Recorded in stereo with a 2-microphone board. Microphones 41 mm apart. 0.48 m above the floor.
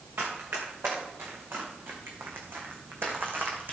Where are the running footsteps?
85° right, 3.5 m; by 3.8 s 55° right (ahead or behind), 2 m.